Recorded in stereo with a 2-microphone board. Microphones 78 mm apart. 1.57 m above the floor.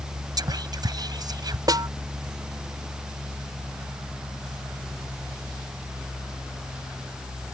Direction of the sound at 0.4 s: 55° right (ahead or behind).